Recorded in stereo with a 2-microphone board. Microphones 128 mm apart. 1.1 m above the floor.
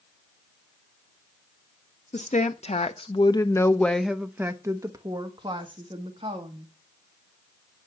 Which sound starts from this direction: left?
A woman speaking, at 2.1 s.